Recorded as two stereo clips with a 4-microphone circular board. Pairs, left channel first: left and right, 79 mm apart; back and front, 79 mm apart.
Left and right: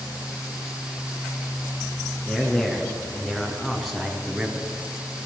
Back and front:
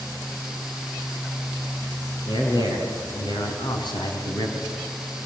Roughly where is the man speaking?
Behind.